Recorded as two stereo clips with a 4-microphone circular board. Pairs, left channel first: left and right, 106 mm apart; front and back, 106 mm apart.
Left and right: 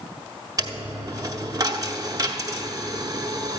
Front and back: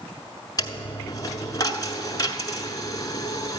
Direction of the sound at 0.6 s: 45° right.